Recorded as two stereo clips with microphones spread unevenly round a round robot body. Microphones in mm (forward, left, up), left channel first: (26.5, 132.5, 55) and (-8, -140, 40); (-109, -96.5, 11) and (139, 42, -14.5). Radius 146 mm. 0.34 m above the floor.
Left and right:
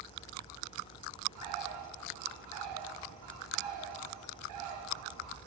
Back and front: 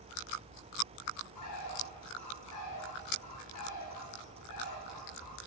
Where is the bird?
120° right, 3 m.